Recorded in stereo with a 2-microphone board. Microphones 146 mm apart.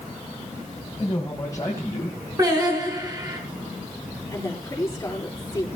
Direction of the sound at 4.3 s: 20° left (ahead or behind).